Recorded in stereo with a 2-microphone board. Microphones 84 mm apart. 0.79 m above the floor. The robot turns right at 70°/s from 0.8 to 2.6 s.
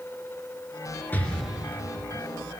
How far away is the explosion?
About 3.5 m.